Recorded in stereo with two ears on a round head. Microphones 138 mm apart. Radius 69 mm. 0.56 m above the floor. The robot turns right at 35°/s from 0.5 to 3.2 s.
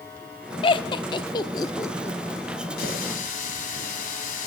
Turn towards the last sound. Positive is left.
turn(degrees=55)  # may be behind; listen again after turning